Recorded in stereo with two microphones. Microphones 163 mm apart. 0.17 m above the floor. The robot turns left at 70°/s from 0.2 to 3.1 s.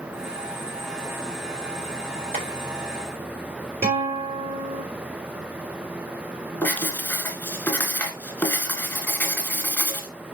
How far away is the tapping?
About 5 m.